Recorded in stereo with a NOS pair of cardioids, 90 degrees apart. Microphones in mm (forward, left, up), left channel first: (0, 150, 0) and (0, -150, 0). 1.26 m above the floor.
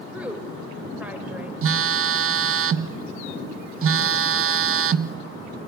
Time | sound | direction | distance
0.1 | a woman speaking | 5° right | 5.5 m
1.6 | a phone buzzing | 50° right | 1.1 m